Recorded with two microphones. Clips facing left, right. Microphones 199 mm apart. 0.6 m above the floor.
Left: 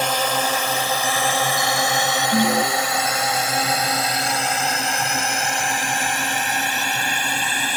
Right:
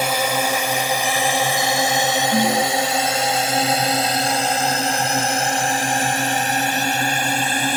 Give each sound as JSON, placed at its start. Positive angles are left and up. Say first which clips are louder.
{"t": 0.0, "sound": "a drone", "louder": "right 1 dB", "side_deg": -10}
{"t": 2.3, "sound": "an alarm", "louder": "left 1 dB", "side_deg": 10}